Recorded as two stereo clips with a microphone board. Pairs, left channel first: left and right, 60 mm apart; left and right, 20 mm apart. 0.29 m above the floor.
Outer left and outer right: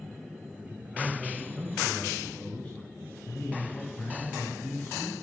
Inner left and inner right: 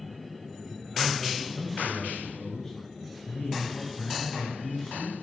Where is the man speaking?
20° right (ahead or behind), 1.8 m; by 5.1 s 40° left (ahead or behind), 3.5 m.